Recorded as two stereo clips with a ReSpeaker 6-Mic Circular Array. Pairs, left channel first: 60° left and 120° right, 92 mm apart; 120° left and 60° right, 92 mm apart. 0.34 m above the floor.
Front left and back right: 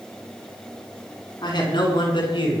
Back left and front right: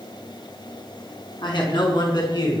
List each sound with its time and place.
1.4 s a man speaking: 95° left, 4 m; by 2.6 s 80° left, 4.5 m